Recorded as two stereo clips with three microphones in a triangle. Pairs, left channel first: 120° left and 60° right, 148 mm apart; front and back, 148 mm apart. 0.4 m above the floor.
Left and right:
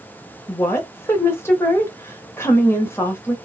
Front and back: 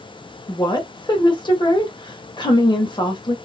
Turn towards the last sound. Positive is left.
turn(degrees=50)